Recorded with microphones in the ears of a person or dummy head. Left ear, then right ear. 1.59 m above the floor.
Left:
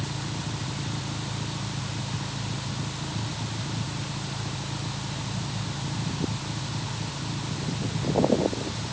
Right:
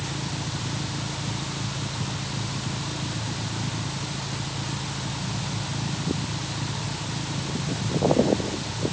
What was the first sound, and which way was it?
Only background noise.